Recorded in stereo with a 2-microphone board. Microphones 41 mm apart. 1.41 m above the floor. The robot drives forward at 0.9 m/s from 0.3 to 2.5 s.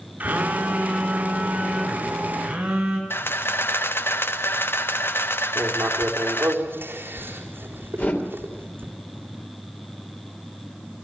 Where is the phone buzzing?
40° right (ahead or behind), 2.5 m; by 3.0 s 25° right (ahead or behind), 4.5 m.